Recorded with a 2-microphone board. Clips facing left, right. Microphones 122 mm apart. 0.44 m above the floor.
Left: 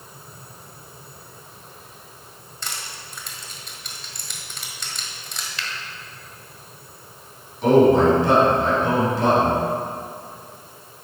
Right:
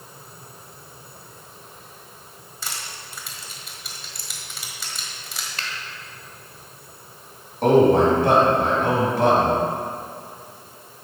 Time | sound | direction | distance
2.6 | crushing | 5° right (ahead or behind) | 1.5 m
5.6 | a finger snap | 50° right (ahead or behind) | 1.2 m
7.6 | a man speaking | 60° right (ahead or behind) | 3.5 m